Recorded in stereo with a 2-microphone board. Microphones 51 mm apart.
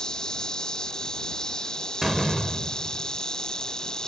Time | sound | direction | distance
0.0 | an insect | 15° left (ahead or behind) | ?
2.0 | a door slam | centre (ahead or behind) | ?